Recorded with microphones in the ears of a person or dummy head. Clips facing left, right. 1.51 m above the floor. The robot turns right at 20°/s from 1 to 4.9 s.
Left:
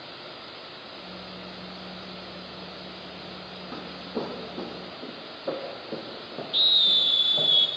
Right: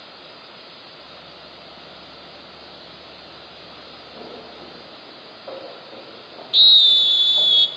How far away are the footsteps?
About 3.5 m.